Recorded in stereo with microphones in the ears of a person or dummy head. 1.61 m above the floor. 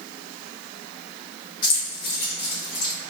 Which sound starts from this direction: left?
Keys jangling, at 1.6 s.